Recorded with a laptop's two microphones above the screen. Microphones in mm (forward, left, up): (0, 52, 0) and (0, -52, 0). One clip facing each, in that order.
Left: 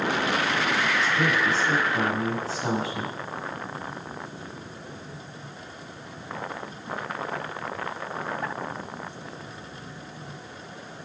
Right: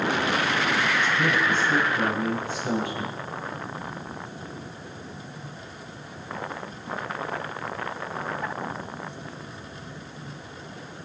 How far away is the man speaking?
About 8 m.